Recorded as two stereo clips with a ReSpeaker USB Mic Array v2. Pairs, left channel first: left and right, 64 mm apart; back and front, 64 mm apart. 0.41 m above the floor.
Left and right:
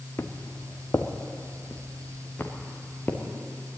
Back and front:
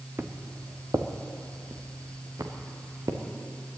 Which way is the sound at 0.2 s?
50° left.